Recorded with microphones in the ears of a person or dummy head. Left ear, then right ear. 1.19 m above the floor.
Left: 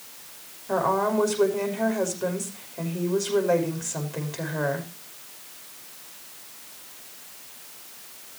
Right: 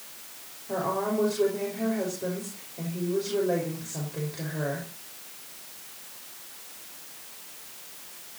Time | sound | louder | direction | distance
0.7 | a woman speaking | left 5 dB | 45° left (ahead or behind) | 5.5 m